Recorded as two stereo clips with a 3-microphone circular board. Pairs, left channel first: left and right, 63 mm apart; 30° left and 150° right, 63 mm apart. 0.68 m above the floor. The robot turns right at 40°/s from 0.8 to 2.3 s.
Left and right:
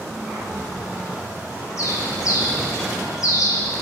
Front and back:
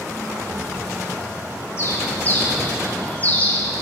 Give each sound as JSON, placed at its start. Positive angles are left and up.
{"t": 1.8, "sound": "a bird", "azimuth_deg": 70, "distance_m": 2.5}